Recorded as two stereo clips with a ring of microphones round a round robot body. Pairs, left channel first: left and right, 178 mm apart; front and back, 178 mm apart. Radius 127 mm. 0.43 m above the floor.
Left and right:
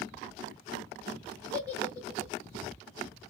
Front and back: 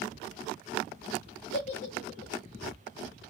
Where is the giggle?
20° right, 2.5 m.